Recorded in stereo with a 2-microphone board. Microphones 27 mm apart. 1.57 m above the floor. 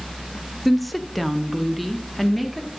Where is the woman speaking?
Centre (ahead or behind), 0.5 m.